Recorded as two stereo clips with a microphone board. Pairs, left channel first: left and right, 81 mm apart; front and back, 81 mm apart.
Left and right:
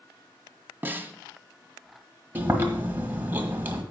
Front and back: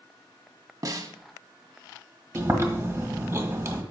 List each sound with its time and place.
0.8 s a snare drum: 150° right, 0.8 m
2.4 s chewing: 140° right, 1.6 m